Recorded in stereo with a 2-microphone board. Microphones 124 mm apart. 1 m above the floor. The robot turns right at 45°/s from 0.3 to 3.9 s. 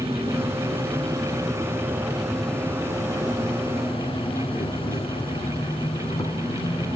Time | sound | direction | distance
0.0 | an insect | 90° right | 1.3 m